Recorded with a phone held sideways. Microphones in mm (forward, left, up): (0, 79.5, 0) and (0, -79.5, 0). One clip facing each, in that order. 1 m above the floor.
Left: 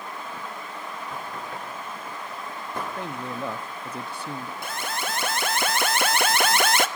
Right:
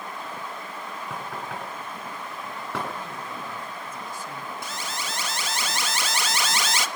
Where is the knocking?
90° right, 7.5 m.